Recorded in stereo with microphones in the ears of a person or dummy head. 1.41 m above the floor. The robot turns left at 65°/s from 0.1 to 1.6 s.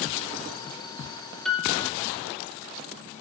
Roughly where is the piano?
Centre.